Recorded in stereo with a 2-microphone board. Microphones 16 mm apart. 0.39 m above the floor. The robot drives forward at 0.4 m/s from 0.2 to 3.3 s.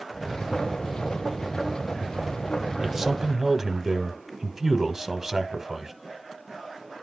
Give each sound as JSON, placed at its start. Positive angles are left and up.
{"t": 2.8, "sound": "a man speaking", "side_deg": -15, "distance_m": 1.0}